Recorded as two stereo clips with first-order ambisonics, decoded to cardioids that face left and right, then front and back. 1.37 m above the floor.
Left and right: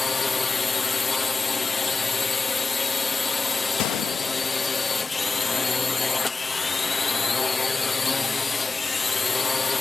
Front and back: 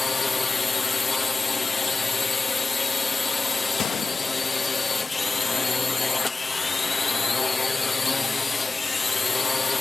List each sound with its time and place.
0.0 s a drone: 40° left
3.8 s a gunshot: 55° left